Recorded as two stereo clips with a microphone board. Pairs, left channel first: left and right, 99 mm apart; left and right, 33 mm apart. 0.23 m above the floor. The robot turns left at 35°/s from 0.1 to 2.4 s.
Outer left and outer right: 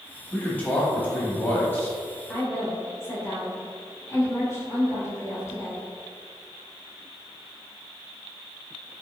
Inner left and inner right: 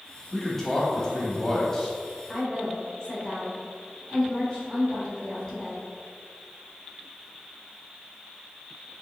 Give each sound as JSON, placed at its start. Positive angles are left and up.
{"t": 0.3, "sound": "a man speaking", "side_deg": 15, "distance_m": 1.0}
{"t": 2.3, "sound": "a woman speaking", "side_deg": 25, "distance_m": 1.4}